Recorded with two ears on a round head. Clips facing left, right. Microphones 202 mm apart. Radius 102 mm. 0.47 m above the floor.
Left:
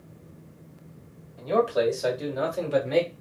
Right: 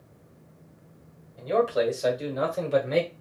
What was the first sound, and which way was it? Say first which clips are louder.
A man speaking: left 1 dB; 10° left (ahead or behind).